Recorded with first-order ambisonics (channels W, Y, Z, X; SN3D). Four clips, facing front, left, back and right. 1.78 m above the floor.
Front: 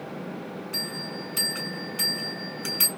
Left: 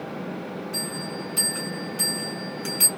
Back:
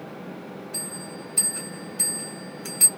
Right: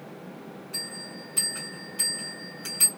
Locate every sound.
0.7 s a bell: 5° left, 2 m